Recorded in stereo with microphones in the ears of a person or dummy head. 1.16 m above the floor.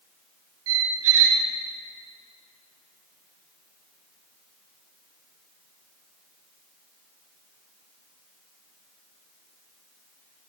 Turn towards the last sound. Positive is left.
turn(degrees=-80)